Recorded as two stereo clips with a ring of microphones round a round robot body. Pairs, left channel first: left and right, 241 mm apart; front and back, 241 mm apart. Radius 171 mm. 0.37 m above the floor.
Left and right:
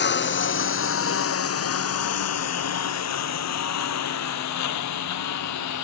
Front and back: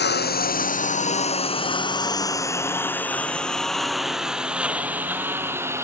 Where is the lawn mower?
45° left; by 5.9 s 100° left.